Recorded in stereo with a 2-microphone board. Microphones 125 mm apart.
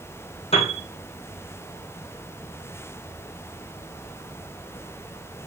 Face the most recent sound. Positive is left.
turn(degrees=50)  # may be behind; listen again after turning